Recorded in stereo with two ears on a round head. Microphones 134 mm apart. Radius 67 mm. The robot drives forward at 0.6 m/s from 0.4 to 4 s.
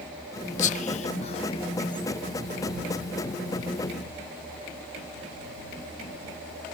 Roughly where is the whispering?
Left.